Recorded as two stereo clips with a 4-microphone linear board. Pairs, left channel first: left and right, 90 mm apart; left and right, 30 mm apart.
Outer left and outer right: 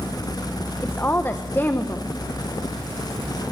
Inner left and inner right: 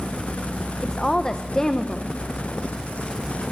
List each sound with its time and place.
0.8 s a woman speaking: 25° left (ahead or behind), 1.2 m